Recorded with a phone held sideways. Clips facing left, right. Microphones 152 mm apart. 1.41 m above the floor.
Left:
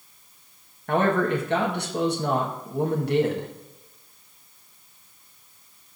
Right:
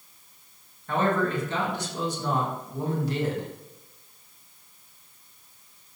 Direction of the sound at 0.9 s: 65° left (ahead or behind).